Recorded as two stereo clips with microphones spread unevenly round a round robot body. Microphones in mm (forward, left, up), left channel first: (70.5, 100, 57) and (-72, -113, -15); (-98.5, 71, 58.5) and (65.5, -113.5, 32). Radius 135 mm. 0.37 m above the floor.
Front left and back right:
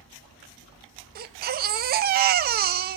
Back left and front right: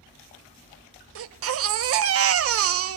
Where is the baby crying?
75° right, 0.7 m.